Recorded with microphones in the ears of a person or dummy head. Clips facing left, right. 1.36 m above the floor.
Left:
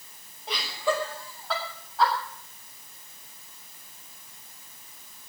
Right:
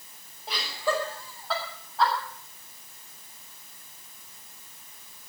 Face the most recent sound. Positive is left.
turn(degrees=5)  # may be behind; listen again after turning